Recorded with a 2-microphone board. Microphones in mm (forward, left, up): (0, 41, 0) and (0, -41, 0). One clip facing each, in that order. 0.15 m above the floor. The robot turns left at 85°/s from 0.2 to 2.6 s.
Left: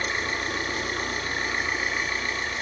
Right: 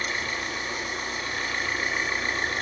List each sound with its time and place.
0.0 s an engine running: 140° left, 1.1 m; by 2.6 s 60° right, 1.1 m